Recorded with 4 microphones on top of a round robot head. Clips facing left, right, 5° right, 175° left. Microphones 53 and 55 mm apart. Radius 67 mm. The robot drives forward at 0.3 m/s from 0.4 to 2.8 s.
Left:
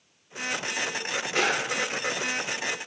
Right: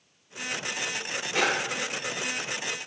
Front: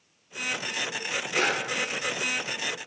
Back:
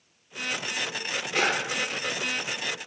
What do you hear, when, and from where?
1.3 s a drawer: 95° right, 1.2 m